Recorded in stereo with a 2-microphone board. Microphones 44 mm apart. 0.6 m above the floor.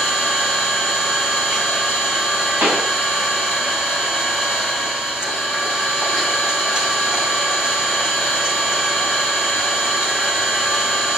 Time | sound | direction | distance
0.0 | an engine running | 20° right (ahead or behind) | 3.5 m
2.6 | a pop | 50° right (ahead or behind) | 4 m